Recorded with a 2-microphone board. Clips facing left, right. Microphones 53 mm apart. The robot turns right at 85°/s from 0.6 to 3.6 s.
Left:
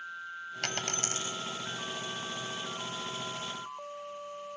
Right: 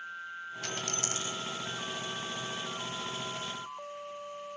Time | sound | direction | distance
0.6 | a dropped coin | 65° left (ahead or behind) | 1.7 m